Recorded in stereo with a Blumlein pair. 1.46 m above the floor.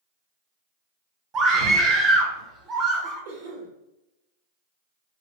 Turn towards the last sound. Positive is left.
turn(degrees=-55)